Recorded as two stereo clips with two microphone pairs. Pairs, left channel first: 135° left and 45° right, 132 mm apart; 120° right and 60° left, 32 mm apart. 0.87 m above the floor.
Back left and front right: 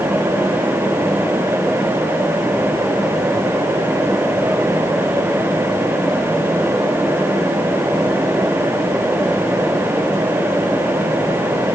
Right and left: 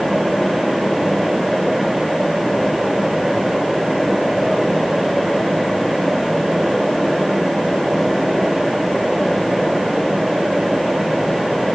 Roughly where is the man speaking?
No man speaking in this recording.